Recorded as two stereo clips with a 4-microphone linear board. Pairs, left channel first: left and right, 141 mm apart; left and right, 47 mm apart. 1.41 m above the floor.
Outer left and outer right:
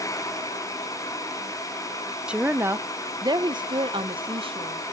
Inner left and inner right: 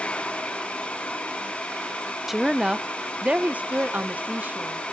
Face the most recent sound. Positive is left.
turn(degrees=-35)  # may be behind; listen again after turning